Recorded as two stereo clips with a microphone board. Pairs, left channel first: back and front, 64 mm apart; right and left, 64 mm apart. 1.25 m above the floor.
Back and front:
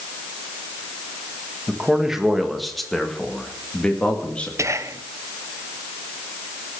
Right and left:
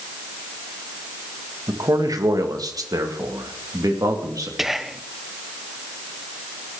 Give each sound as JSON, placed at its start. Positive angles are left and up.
{"t": 1.7, "sound": "a man speaking", "azimuth_deg": 75, "distance_m": 1.8}
{"t": 4.6, "sound": "whispering", "azimuth_deg": 5, "distance_m": 0.8}